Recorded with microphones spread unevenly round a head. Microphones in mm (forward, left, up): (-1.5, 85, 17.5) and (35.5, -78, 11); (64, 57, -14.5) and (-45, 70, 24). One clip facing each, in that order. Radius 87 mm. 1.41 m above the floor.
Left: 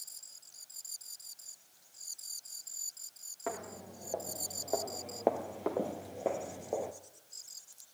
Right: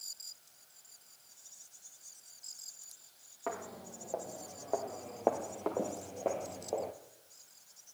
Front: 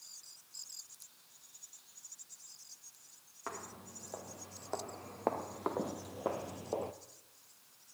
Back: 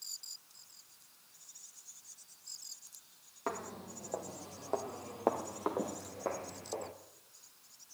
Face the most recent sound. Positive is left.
turn(degrees=55)